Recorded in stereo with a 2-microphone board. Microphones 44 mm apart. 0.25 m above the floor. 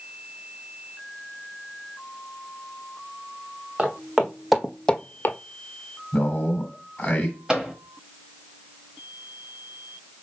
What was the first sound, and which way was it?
Footsteps, 20° right (ahead or behind).